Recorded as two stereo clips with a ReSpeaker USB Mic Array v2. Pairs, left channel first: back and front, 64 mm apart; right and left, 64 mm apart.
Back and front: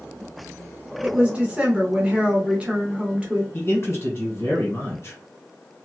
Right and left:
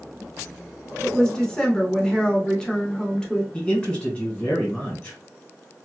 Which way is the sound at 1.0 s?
30° right.